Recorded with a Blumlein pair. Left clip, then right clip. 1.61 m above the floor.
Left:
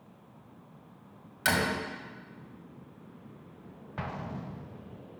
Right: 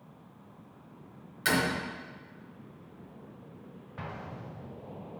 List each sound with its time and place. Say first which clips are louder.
1.4 s a door slam: even; 15° left, 1.6 m
4.0 s an explosion: left 3 dB; 70° left, 0.6 m